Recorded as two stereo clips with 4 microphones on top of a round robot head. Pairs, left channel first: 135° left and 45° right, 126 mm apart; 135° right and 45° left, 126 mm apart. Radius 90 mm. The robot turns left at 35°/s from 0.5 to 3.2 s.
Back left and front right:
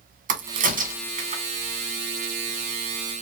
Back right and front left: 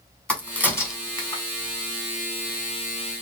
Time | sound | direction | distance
0.3 | a crack | 50° right | 1.4 m